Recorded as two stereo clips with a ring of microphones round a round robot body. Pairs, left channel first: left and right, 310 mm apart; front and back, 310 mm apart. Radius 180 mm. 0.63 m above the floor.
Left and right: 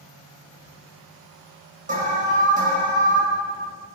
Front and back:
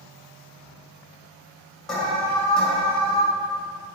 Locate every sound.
1.9 s an alarm: 85° right, 1.7 m